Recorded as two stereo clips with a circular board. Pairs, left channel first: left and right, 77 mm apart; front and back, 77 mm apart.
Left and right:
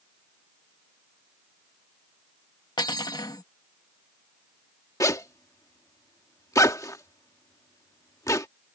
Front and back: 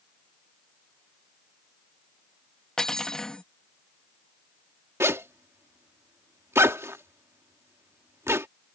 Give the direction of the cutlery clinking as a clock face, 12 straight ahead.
9 o'clock.